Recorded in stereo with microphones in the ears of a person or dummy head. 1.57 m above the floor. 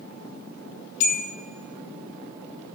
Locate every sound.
1.0 s a bell: 65° left (ahead or behind), 2.5 m